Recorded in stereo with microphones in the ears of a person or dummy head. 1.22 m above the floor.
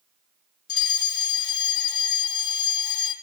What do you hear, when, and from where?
0.7 s a fire alarm: 25° left (ahead or behind), 4.5 m